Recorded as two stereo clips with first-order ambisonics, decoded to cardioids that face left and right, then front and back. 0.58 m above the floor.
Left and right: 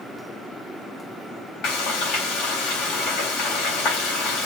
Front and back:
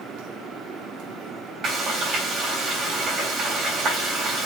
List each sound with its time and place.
1.6 s frying: 120° left, 4 m